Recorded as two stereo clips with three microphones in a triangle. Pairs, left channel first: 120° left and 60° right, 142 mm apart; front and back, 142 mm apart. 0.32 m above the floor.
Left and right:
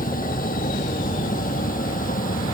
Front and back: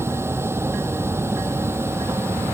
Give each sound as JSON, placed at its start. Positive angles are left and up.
{"t": 0.0, "sound": "a vehicle", "azimuth_deg": 105}